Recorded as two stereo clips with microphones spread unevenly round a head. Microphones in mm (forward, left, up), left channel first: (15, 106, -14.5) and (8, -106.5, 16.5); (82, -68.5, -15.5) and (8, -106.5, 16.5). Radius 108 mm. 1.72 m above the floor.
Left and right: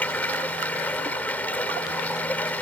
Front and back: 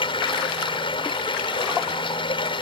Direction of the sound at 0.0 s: Straight ahead.